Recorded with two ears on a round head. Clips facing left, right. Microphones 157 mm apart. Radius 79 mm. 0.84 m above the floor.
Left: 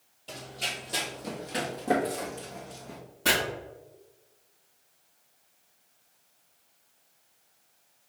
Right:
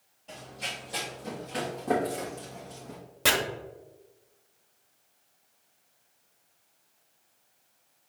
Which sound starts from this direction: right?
Chopping, at 3.2 s.